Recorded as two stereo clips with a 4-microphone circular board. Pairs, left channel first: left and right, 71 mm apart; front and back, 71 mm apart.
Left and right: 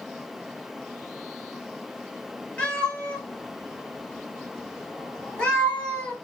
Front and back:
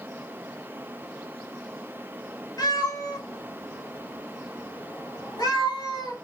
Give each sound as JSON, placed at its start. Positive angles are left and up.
{"t": 2.6, "sound": "a cat meowing", "azimuth_deg": 15, "distance_m": 1.3}